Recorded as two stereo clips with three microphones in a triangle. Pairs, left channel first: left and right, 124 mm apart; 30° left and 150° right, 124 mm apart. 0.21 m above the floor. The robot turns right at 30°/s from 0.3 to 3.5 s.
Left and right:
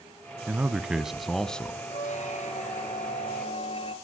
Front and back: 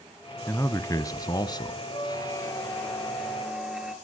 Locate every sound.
0.5 s a man speaking: 25° right, 1.2 m; by 1.8 s 15° left, 1.2 m
1.9 s a squeak: 80° left, 2 m; by 3.9 s 125° left, 2 m